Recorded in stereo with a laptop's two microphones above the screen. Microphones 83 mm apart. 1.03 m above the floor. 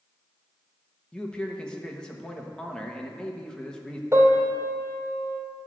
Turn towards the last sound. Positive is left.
turn(degrees=-35)  # may be behind; listen again after turning